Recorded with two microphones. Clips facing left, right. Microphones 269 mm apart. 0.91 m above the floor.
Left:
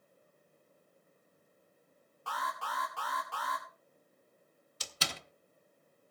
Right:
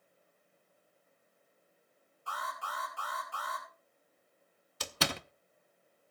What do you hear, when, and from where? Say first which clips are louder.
2.3 s an alarm: left 3 dB; 80° left, 2.5 m
4.8 s a door slam: right 8 dB; 65° right (ahead or behind), 0.5 m